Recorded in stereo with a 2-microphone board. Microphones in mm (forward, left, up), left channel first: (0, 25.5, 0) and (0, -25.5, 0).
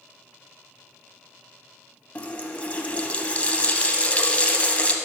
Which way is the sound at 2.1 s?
25° left (ahead or behind).